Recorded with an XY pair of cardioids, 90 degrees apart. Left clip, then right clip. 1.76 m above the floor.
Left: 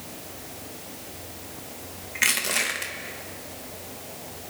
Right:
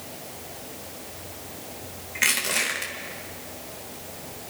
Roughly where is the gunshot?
I don't hear a gunshot.